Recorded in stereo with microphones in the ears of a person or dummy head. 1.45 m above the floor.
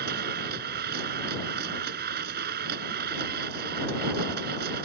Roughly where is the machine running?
Right.